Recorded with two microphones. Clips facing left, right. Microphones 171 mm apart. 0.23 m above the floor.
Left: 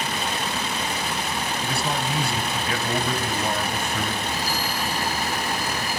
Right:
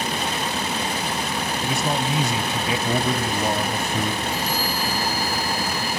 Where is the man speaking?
20° right (ahead or behind), 1.0 m.